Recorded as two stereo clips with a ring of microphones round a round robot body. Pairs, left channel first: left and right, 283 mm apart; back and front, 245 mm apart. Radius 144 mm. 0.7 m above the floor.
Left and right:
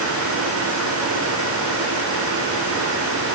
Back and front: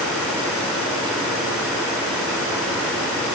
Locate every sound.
Only background noise.